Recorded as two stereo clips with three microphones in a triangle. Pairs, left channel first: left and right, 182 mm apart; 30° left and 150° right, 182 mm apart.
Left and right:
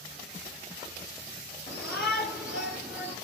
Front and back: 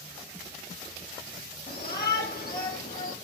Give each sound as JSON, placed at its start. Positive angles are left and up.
{"t": 1.7, "sound": "a shout", "azimuth_deg": 5, "distance_m": 4.5}